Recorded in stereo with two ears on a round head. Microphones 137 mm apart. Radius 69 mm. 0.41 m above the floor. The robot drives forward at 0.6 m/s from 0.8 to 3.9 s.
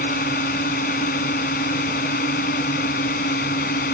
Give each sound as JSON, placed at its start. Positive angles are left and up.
{"t": 0.0, "sound": "a drone", "side_deg": 55}